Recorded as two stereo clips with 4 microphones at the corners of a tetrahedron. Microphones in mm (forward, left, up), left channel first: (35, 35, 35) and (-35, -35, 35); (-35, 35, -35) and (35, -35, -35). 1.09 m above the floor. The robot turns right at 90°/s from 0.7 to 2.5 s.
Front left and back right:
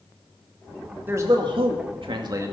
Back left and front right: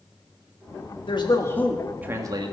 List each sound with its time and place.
1.1 s a man speaking: 160° left, 2 m; by 2.5 s 75° right, 2 m